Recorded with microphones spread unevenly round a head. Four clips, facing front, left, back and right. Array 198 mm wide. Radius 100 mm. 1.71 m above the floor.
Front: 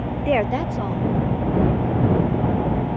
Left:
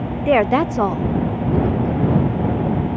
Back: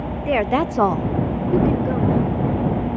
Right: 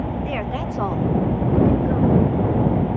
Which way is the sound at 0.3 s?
75° left.